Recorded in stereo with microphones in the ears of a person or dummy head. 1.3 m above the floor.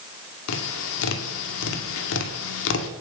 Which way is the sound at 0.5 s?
70° left (ahead or behind).